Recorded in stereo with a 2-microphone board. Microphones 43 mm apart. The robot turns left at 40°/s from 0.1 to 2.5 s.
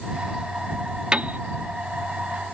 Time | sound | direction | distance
1.1 | a piano | 25° right (ahead or behind) | ?